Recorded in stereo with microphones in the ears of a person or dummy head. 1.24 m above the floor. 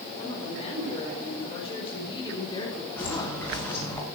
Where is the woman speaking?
35° left (ahead or behind), 7 m; by 3.4 s 20° left (ahead or behind), 3 m.